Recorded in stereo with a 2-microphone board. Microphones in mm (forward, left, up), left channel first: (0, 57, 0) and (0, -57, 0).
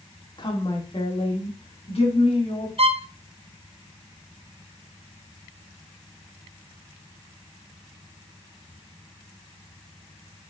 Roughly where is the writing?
No writing in this recording.